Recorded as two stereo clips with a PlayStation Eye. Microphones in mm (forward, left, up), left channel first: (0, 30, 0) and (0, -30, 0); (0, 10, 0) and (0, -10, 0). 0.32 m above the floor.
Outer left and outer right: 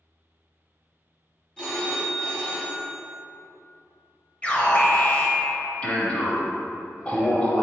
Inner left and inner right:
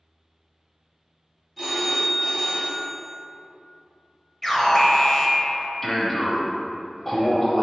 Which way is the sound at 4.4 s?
20° left (ahead or behind).